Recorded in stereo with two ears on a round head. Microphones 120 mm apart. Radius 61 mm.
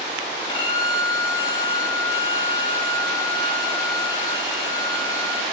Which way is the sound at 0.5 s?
35° left (ahead or behind).